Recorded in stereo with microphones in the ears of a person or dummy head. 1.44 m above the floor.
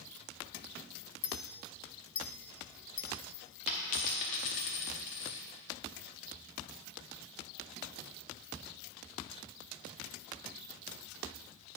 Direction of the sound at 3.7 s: 30° left (ahead or behind).